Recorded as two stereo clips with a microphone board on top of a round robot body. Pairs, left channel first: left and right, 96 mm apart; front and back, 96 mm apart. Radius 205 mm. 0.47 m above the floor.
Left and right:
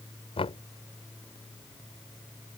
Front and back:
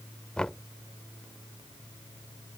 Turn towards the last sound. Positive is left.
turn(degrees=80)